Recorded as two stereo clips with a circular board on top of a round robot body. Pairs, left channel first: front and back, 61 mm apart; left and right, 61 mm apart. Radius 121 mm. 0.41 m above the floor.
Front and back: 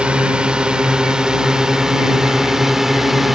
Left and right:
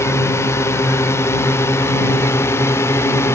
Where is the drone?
110° left; by 3.4 s 95° left.